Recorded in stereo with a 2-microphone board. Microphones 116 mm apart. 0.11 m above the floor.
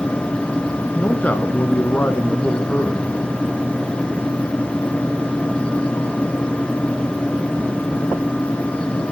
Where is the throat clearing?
No throat clearing in this recording.